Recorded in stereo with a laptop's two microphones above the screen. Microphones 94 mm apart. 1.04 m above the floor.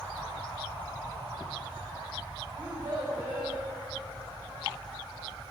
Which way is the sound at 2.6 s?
65° right (ahead or behind).